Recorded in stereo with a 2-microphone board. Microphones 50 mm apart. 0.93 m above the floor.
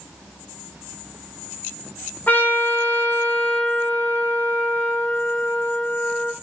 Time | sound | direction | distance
2.3 | a trumpet | 40° left (ahead or behind) | 0.8 m